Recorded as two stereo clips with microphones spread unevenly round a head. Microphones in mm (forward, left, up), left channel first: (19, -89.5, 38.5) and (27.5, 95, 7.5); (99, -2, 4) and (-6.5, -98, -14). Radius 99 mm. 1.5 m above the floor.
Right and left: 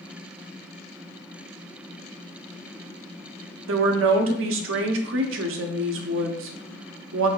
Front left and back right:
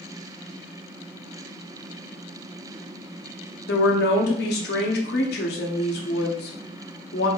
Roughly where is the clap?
I don't hear a clap.